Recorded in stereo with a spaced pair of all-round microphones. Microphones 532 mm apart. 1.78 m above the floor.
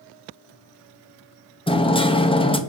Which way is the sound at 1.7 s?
10° left (ahead or behind).